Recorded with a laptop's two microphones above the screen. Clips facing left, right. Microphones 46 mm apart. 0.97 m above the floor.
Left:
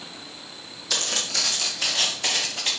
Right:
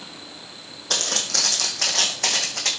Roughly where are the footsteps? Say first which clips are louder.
Right 1 dB; right.